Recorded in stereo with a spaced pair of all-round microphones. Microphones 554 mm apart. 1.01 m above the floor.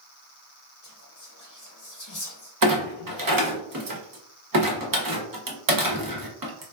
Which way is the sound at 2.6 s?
40° right (ahead or behind).